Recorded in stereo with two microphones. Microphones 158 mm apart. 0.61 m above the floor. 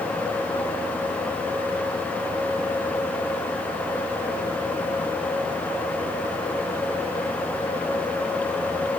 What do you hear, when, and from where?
Only background noise.